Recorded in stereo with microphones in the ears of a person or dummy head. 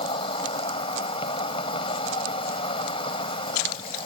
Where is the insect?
30° left (ahead or behind).